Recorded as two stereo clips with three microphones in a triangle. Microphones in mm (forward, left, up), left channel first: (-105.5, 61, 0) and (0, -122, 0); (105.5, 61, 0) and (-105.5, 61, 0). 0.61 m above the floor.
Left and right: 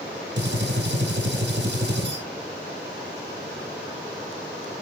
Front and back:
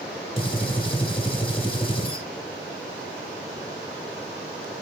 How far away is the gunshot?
About 0.9 m.